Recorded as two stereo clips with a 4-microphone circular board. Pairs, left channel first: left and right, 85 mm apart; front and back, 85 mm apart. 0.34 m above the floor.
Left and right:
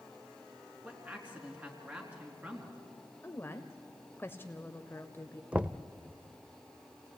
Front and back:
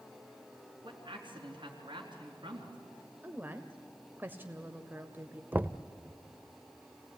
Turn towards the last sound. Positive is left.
turn(degrees=-150)